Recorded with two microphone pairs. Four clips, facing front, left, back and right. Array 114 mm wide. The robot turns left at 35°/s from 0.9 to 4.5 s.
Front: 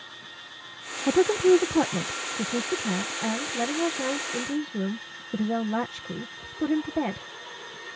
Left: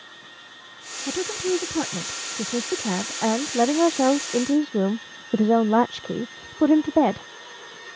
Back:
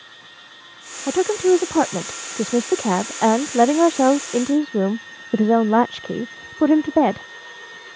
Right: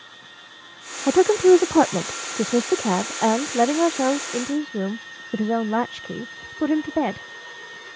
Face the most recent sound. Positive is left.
turn(degrees=145)